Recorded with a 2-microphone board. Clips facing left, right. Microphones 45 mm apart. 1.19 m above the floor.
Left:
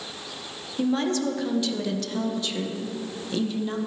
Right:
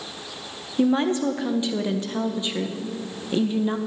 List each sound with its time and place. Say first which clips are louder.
0.8 s a woman speaking: right 4 dB; 25° right (ahead or behind), 1.1 m